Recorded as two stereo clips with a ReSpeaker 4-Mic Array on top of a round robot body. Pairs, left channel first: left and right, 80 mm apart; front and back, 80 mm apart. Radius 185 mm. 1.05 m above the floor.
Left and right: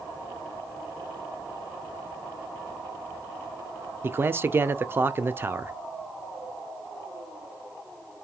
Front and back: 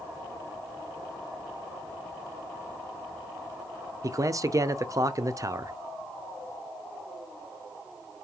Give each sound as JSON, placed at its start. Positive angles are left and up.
{"t": 4.0, "sound": "a man speaking", "azimuth_deg": -145, "distance_m": 0.6}